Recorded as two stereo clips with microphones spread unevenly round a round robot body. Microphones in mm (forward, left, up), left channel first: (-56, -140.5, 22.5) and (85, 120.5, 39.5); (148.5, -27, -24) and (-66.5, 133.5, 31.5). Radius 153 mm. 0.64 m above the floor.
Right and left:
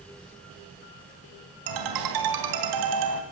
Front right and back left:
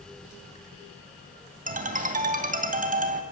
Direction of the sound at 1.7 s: 80° left.